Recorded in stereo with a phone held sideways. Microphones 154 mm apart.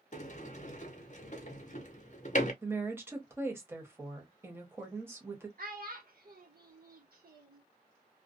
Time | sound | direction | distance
0.1 | a sliding door | 50° left (ahead or behind) | 0.6 m
2.6 | a woman speaking | 15° right (ahead or behind) | 1.0 m
5.6 | a child speaking | 75° right (ahead or behind) | 1.1 m